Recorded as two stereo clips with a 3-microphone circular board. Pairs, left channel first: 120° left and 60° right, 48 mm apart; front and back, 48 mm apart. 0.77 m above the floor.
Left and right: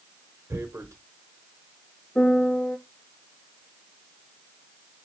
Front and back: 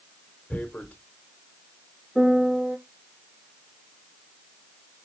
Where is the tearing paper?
60° right, 1.0 m.